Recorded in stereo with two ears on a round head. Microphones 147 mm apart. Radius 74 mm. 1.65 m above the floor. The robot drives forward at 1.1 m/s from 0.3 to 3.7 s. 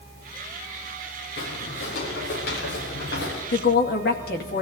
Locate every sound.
1.4 s footsteps: 75° left (ahead or behind), 7 m
3.5 s a woman speaking: 70° left (ahead or behind), 2 m; by 4.6 s 65° left (ahead or behind), 2.5 m